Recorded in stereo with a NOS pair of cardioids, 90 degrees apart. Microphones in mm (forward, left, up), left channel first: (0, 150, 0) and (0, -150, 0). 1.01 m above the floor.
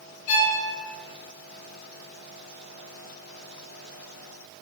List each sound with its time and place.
0.3 s a violin: 70° left, 0.7 m